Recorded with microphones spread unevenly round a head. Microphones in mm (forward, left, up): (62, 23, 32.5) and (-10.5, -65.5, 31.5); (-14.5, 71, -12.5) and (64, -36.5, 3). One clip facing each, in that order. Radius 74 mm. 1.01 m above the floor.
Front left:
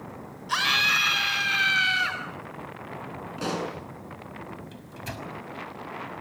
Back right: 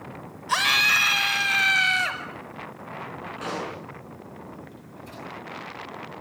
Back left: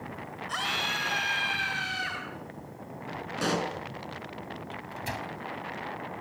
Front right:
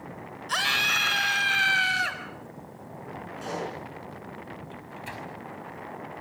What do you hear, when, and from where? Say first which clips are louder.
0.5 s a scream: back right 3 dB, front right 4 dB; 90° right, 4.5 m
3.4 s a pop: front left 2 dB, back left 4 dB; 115° left, 6.5 m
4.7 s a microwave: front left 2 dB, back left 2 dB; 80° left, 4.5 m